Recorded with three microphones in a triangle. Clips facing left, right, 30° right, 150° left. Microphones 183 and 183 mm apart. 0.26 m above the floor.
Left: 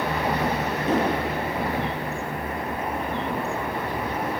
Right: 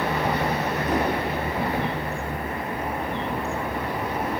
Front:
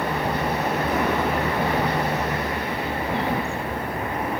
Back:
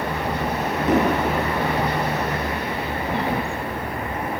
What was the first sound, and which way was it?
An explosion, 150° left.